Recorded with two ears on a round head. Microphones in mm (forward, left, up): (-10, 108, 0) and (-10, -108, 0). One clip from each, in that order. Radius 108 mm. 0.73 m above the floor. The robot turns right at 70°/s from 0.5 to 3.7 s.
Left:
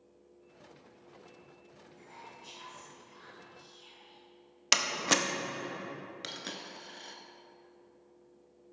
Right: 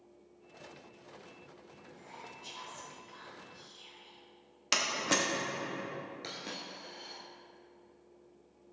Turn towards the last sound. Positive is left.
turn(degrees=40)  # may be behind; listen again after turning